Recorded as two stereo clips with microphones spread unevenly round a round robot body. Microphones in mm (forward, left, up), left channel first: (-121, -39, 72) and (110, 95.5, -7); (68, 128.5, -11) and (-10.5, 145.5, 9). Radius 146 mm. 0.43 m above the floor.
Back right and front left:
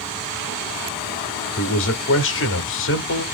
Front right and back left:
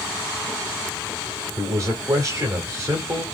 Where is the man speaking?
150° right, 1.0 m.